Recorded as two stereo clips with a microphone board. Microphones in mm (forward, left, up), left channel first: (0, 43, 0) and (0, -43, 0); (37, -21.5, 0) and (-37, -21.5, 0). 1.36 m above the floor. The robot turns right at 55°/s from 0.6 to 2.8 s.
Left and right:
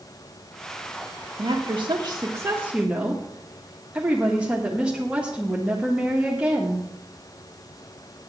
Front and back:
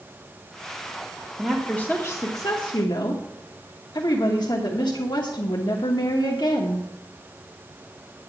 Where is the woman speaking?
90° right, 1.4 m; by 6.8 s 15° right, 1.4 m.